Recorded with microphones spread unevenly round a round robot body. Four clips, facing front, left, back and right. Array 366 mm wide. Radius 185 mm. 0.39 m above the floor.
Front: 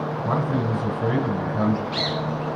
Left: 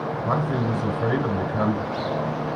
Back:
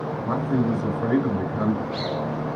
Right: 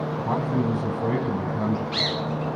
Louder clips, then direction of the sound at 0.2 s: Even, back 2 dB; 80° left.